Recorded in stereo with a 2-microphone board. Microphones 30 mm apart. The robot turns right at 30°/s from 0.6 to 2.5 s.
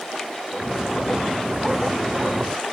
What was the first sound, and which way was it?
Only background noise.